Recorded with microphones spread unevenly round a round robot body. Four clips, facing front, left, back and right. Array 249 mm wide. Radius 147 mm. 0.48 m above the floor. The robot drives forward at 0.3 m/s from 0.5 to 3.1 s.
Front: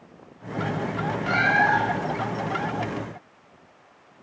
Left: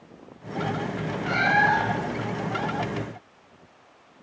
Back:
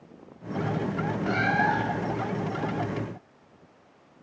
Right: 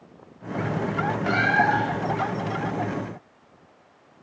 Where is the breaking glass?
I don't hear breaking glass.